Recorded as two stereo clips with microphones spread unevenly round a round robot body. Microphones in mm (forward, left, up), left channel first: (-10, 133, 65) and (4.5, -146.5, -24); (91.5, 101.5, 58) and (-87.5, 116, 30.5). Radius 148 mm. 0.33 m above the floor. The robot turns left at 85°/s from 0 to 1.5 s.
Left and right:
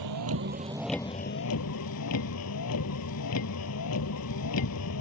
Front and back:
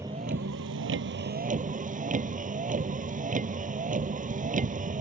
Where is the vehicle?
100° right; by 5.0 s 130° left.